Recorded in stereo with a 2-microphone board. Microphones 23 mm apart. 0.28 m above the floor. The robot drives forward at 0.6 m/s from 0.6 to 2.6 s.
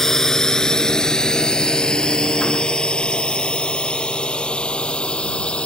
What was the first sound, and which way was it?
A drone, 25° left (ahead or behind).